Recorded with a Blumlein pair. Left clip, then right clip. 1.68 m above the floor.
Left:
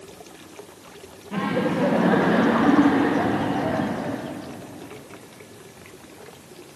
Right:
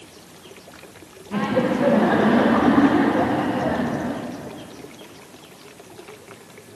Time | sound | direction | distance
1.3 | laughter | 5° right | 0.7 m